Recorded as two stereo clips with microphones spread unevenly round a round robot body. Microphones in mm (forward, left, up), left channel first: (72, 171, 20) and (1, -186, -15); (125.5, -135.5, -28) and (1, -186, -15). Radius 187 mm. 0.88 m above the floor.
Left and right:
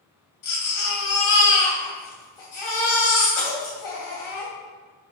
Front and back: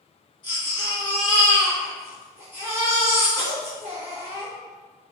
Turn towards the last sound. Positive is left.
turn(degrees=75)